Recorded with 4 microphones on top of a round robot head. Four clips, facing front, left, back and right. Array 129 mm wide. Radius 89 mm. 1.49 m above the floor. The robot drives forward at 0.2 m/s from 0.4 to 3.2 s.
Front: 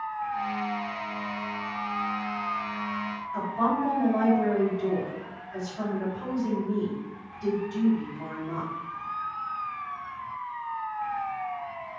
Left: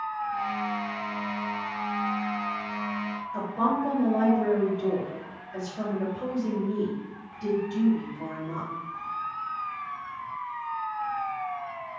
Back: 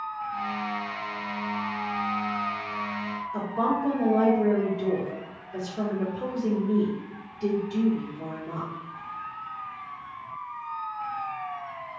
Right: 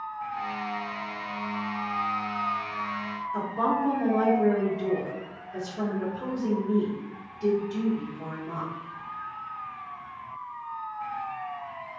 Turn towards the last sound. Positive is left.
turn(degrees=175)